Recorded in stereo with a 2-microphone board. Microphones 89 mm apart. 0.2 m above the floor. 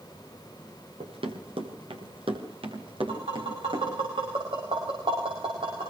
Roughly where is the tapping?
Right.